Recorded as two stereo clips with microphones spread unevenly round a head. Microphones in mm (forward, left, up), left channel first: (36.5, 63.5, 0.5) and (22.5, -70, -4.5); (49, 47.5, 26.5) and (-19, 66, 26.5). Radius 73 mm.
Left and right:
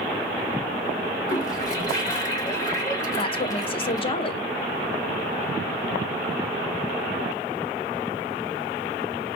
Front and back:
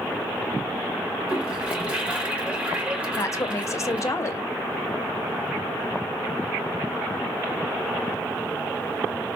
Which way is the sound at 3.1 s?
35° left.